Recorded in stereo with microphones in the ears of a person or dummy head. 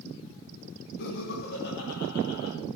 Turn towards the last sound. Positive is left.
turn(degrees=55)  # may be behind; listen again after turning